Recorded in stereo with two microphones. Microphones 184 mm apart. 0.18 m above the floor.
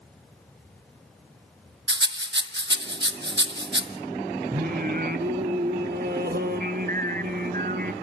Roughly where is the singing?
Right.